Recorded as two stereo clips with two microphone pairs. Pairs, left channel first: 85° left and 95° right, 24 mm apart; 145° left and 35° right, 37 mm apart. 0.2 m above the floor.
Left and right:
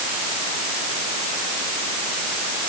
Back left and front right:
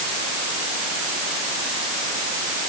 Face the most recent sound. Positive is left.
No sound to turn to.